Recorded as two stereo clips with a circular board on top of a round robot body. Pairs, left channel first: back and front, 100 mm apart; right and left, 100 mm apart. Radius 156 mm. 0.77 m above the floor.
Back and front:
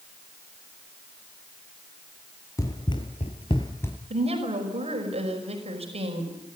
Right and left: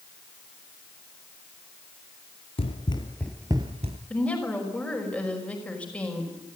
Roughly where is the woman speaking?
Ahead.